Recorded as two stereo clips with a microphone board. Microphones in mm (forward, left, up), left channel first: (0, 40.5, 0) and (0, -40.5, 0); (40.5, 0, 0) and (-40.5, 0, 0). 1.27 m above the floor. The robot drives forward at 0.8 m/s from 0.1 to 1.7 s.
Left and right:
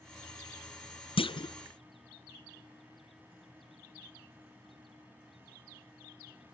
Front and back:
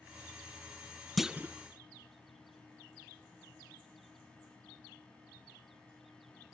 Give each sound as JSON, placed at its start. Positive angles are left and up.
{"t": 1.2, "sound": "a clunk", "azimuth_deg": 90, "distance_m": 0.5}